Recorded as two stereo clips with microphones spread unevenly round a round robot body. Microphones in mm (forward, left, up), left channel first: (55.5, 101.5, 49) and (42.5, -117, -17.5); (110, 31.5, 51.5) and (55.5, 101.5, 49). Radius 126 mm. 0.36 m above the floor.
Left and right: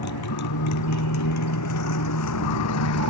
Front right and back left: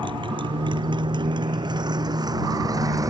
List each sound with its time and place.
0.0 s a motorcycle: 105° left; by 3.1 s 80° left